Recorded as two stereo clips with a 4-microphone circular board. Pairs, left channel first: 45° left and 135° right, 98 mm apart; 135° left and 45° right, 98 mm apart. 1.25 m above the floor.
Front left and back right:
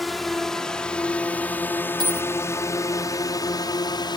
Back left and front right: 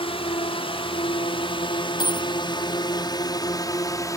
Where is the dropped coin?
Straight behind.